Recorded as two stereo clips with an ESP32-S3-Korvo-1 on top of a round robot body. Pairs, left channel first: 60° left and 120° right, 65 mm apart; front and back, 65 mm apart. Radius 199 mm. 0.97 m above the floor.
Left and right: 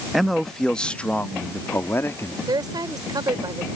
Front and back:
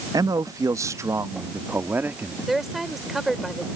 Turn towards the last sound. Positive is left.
turn(degrees=-95)